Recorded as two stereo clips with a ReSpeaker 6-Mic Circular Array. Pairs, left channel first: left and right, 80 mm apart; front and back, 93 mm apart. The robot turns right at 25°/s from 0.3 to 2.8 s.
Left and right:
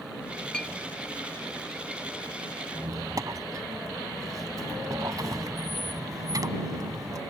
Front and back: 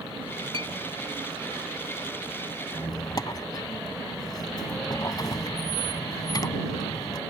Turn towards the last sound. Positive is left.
turn(degrees=-45)